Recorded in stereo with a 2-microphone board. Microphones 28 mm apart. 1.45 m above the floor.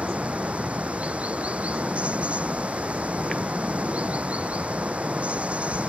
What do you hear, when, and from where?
0.0 s running water: 55° right (ahead or behind)